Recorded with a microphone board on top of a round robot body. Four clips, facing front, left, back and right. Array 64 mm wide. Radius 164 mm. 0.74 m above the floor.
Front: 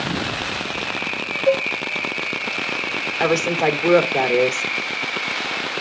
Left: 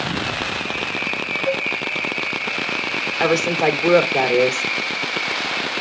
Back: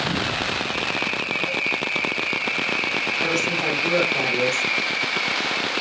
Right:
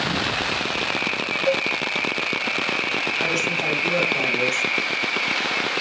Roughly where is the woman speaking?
Ahead left.